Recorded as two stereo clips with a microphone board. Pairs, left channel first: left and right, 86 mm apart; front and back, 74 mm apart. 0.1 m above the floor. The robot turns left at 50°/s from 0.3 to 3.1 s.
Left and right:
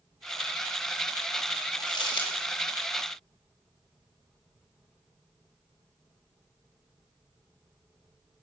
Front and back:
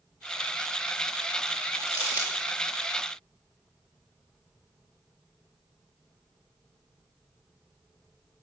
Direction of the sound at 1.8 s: 130° left.